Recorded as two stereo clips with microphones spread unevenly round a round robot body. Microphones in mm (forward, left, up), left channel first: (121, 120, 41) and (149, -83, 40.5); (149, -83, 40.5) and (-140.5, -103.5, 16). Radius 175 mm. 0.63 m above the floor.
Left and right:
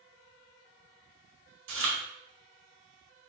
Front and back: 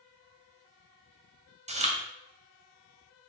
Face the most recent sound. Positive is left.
turn(degrees=-110)